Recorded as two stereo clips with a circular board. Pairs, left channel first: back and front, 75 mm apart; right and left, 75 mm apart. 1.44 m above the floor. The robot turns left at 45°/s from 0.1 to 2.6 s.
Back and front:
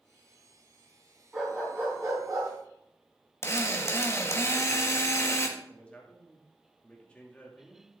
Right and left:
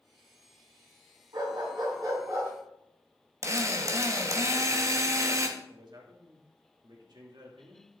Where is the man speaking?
105° left, 2.5 m.